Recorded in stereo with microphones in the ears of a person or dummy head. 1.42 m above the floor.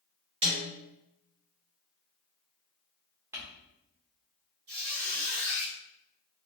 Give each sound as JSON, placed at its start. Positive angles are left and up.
{"t": 0.4, "sound": "a snare drum", "side_deg": -30, "distance_m": 0.8}
{"t": 3.3, "sound": "crumpling", "side_deg": -15, "distance_m": 0.9}
{"t": 4.7, "sound": "a squeak", "side_deg": -50, "distance_m": 1.1}